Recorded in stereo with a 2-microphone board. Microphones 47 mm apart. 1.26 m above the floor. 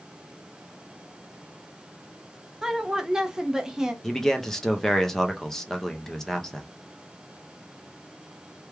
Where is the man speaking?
10° left (ahead or behind), 0.7 m.